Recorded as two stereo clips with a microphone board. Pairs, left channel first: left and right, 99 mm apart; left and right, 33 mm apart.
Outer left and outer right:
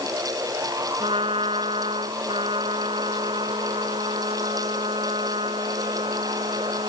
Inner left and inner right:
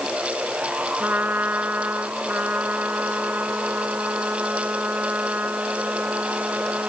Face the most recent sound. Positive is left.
turn(degrees=-70)  # may be behind; listen again after turning